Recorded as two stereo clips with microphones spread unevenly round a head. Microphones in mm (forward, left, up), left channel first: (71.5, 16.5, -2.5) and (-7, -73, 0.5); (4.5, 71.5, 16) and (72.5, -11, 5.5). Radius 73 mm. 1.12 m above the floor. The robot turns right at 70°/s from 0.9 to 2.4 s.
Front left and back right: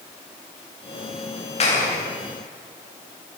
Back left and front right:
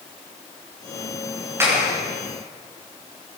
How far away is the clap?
About 9.5 m.